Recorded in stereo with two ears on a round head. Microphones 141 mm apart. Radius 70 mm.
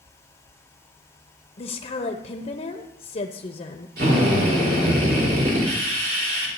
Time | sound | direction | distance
1.6 | a woman speaking | 40° left (ahead or behind) | 0.8 m
4.0 | a drill | 65° right (ahead or behind) | 4 m